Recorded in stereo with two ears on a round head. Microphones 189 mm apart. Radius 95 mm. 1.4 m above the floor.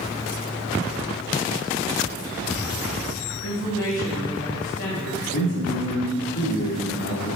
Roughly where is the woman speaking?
Left.